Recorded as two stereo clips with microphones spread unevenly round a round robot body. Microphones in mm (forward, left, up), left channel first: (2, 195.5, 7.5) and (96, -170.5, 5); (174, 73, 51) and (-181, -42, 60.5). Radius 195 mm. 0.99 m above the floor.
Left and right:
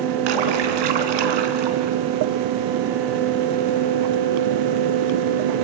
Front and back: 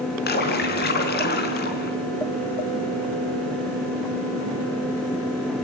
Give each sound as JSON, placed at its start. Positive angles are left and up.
{"t": 0.3, "sound": "a splash", "azimuth_deg": -50, "distance_m": 3.0}